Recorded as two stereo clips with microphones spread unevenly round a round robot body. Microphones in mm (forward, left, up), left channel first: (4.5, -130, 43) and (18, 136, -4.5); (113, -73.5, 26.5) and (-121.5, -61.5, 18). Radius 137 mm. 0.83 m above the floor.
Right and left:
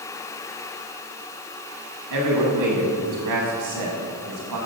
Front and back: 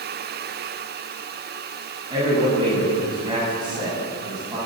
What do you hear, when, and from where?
2.1 s a man speaking: 100° left, 6 m